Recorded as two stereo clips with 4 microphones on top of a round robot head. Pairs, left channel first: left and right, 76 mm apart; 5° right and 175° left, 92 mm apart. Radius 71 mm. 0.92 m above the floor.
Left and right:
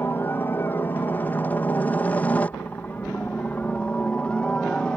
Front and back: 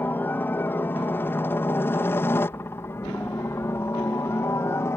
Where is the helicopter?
50° left; by 5.0 s 25° left.